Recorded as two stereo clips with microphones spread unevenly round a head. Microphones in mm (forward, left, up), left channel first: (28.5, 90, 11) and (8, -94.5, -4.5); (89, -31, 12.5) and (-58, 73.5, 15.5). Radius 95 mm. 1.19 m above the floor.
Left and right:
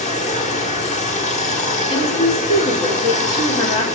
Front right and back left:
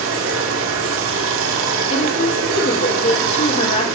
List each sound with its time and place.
0.0 s running water: 135° left, 1.5 m
1.9 s a woman speaking: 20° left, 3.5 m